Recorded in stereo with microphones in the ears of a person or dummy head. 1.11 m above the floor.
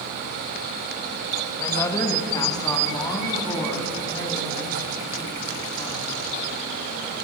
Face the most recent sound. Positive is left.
turn(degrees=20)  # may be behind; listen again after turning